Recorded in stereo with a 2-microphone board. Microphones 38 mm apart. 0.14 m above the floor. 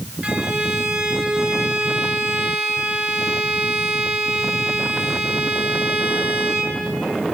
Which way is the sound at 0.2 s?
40° right (ahead or behind).